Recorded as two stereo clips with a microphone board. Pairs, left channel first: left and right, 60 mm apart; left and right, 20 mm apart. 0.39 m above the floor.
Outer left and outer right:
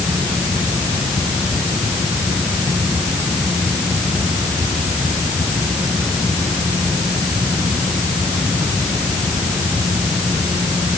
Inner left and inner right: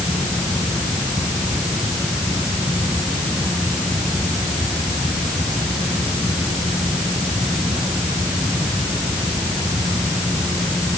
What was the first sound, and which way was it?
Only background noise.